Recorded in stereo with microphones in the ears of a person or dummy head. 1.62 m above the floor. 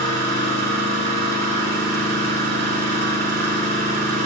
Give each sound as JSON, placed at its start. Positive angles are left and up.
{"t": 0.0, "sound": "an engine running", "side_deg": -50, "distance_m": 4.0}